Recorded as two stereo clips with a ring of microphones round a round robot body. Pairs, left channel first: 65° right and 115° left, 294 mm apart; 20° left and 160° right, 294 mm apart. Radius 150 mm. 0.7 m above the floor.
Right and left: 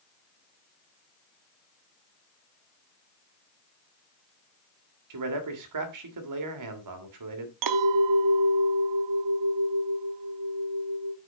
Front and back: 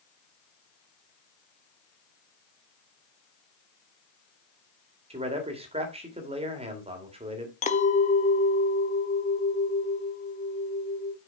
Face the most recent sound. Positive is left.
turn(degrees=90)